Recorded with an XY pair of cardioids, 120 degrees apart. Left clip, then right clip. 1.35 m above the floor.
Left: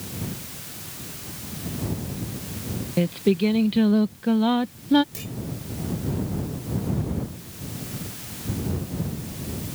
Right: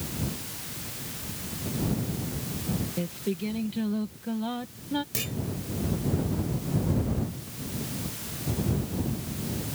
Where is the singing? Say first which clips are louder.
Left 15 dB; 55° left.